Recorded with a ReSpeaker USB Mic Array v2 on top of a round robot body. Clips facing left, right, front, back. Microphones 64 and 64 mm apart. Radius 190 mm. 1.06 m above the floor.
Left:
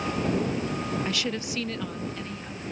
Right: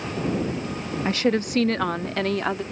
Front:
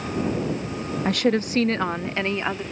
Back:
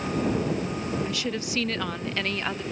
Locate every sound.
1.1 s a woman speaking: 35° right; by 2.6 s 70° right